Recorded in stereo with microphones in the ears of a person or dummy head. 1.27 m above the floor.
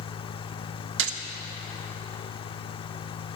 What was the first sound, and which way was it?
A gunshot, 75° right (ahead or behind).